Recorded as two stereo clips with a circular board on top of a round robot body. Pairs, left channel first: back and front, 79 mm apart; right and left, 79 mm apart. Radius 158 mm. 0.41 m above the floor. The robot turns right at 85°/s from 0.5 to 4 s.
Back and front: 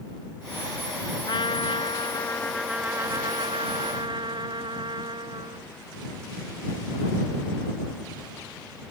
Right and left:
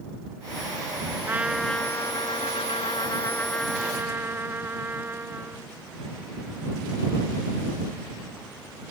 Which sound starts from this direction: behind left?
A trumpet, at 1.3 s.